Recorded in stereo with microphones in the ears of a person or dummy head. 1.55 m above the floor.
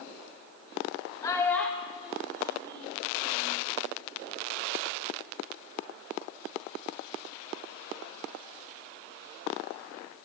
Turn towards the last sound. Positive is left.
turn(degrees=-45)  # may be behind; listen again after turning